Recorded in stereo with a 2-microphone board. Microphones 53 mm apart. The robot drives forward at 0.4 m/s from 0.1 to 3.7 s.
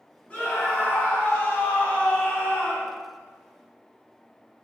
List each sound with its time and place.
0.3 s a scream: 25° left (ahead or behind), 1.5 m; by 3.0 s 30° left (ahead or behind), 1.4 m